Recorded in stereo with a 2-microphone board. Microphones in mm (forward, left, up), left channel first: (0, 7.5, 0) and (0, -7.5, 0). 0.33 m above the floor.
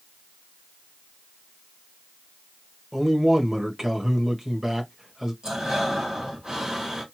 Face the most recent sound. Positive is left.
turn(degrees=-60)  # may be behind; listen again after turning